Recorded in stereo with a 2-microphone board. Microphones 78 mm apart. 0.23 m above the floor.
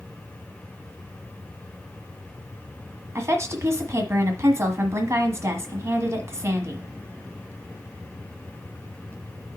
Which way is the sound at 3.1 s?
40° right (ahead or behind).